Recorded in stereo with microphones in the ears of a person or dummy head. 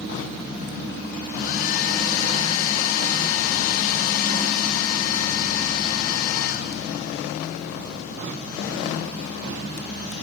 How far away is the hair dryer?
About 1.4 m.